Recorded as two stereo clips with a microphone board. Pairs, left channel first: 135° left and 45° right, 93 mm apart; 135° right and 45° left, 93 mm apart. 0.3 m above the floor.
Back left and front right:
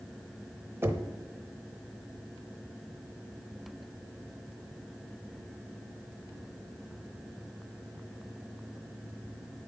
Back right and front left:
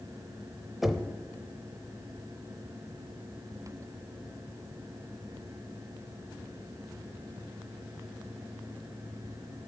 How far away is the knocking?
About 0.7 m.